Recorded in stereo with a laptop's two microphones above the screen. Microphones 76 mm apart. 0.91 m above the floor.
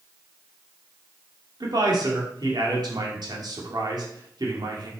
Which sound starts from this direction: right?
A man speaking, at 1.6 s.